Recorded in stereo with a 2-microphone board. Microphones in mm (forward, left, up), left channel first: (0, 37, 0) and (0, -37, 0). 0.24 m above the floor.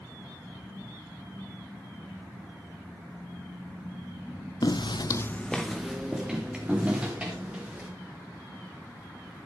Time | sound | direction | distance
4.6 | footsteps | 60° left (ahead or behind) | 0.8 m